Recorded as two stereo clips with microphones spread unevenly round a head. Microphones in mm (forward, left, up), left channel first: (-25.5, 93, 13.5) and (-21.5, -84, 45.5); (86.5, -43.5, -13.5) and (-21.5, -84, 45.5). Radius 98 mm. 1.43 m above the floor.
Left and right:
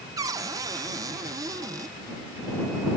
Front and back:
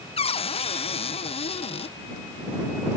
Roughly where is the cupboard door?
Ahead.